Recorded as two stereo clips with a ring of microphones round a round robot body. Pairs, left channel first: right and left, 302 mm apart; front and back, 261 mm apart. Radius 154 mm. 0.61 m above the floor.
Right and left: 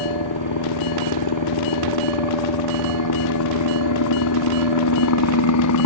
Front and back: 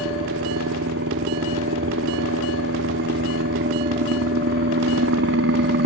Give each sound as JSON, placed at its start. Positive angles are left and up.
{"t": 0.0, "sound": "a helicopter", "azimuth_deg": -125}